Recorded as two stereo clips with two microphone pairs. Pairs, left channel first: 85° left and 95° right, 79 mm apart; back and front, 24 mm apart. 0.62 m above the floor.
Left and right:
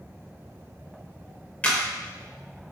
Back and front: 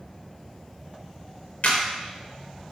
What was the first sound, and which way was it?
A camera shutter, 155° left.